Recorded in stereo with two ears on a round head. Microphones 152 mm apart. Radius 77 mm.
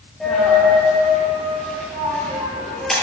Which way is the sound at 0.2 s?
Centre (ahead or behind).